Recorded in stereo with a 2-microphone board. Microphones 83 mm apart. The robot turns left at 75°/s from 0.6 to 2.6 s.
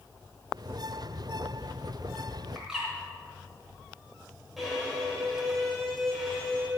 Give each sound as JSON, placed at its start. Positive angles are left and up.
{"t": 2.5, "sound": "a bird", "side_deg": -5, "distance_m": 3.5}
{"t": 4.6, "sound": "a violin", "side_deg": 0, "distance_m": 4.0}